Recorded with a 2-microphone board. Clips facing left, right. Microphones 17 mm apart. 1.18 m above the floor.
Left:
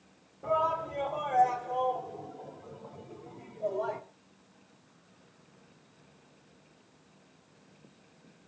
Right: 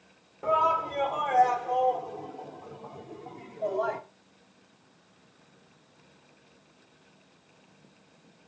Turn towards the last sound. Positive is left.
turn(degrees=-50)  # may be behind; listen again after turning